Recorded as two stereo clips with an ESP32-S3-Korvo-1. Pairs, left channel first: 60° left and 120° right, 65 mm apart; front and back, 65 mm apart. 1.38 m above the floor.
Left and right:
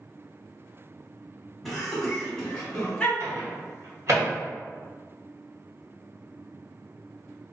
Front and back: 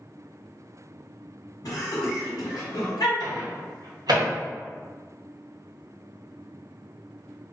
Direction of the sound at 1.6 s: 35° right.